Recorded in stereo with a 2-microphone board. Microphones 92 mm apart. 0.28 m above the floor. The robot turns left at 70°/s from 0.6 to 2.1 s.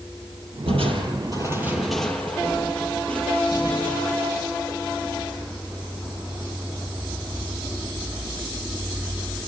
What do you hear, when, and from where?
0.7 s crushing: 90° right, 4.5 m; by 4.8 s 170° left, 4.5 m